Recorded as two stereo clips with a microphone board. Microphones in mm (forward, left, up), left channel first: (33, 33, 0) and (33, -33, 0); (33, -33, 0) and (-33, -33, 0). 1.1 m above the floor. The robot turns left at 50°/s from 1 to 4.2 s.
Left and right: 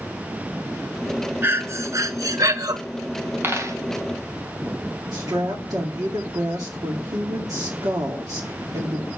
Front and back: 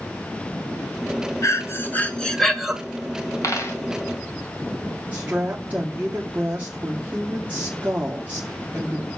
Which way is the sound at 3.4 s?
35° right.